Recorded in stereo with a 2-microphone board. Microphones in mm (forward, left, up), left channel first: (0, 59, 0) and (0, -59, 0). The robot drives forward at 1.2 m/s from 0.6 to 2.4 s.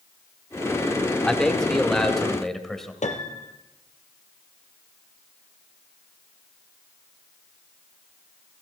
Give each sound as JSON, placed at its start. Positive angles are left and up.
{"t": 1.2, "sound": "a man speaking", "side_deg": 5, "distance_m": 1.2}
{"t": 3.0, "sound": "a piano", "side_deg": 85, "distance_m": 2.0}